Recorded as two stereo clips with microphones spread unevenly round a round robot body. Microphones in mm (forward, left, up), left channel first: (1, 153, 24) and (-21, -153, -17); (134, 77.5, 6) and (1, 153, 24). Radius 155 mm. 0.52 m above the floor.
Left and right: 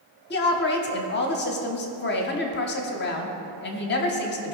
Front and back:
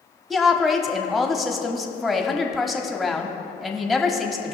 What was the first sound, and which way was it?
A woman speaking, 50° left.